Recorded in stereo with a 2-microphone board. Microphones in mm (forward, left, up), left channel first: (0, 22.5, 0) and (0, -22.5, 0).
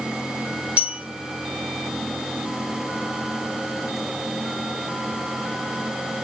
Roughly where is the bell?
Right.